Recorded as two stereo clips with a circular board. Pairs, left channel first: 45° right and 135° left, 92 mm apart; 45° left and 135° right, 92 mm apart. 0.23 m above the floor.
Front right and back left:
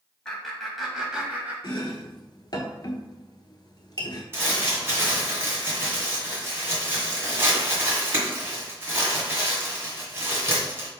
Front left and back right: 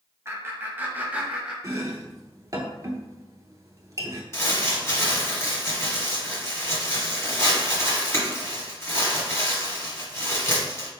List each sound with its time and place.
0.2 s laughter: 115° right, 1.2 m; by 1.5 s 165° left, 1.1 m
1.6 s chopping: 85° right, 0.8 m
4.3 s crumpling: 85° left, 1.6 m